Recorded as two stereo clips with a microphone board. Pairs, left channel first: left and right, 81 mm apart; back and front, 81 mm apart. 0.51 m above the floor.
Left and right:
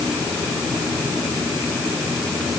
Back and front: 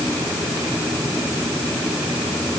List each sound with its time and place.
Only background noise.